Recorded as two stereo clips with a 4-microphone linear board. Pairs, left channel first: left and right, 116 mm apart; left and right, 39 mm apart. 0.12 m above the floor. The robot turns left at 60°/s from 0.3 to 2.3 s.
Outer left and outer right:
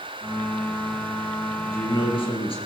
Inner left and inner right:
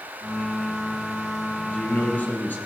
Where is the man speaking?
145° left, 2.5 m; by 2.6 s 105° left, 2.5 m.